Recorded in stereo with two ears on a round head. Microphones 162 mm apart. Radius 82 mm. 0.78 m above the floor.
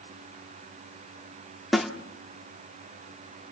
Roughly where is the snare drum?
Centre.